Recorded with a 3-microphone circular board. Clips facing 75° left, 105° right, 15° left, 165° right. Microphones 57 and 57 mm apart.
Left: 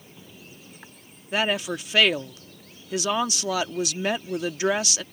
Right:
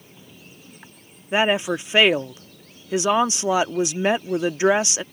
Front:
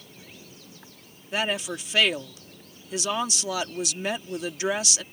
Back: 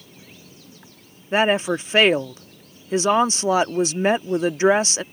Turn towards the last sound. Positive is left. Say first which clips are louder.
# right 5 dB, back 9 dB
turn(degrees=-155)